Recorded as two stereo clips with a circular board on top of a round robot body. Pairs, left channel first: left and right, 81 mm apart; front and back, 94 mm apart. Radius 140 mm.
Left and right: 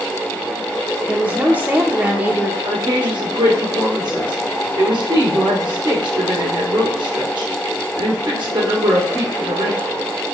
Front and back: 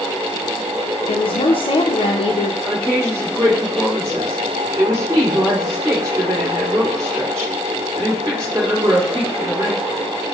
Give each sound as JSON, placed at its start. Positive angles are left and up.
{"t": 1.1, "sound": "a woman speaking", "azimuth_deg": -15, "distance_m": 0.6}
{"t": 2.6, "sound": "a woman speaking", "azimuth_deg": -125, "distance_m": 2.5}